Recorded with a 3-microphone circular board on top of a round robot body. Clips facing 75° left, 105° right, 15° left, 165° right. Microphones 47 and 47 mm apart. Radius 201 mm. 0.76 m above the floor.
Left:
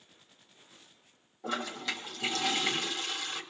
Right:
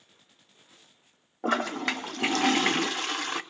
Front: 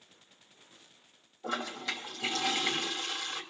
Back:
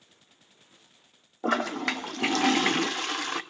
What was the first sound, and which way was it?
A toilet flushing, 140° right.